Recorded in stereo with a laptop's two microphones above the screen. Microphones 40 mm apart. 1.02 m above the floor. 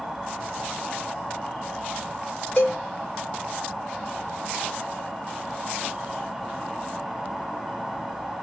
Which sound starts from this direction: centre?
An insect, at 0.0 s.